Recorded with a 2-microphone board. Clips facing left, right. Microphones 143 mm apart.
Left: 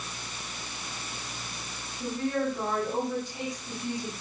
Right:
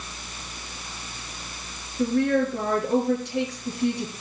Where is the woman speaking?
75° right (ahead or behind), 6.5 m.